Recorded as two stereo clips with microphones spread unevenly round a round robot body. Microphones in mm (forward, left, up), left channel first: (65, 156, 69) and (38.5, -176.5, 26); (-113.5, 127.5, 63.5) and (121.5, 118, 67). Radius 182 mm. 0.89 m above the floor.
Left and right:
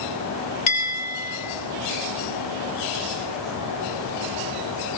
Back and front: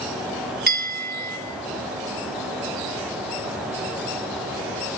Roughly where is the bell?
Ahead left.